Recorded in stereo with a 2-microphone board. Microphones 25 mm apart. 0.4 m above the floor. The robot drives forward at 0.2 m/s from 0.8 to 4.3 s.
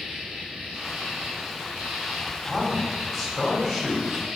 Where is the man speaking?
10° right (ahead or behind), 1.9 m.